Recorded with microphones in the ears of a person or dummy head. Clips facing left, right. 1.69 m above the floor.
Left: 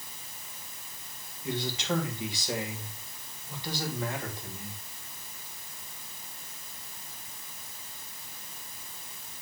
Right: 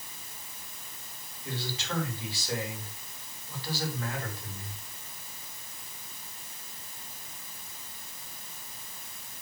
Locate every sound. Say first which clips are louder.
1.4 s a man speaking: left 5 dB; 20° left (ahead or behind), 3 m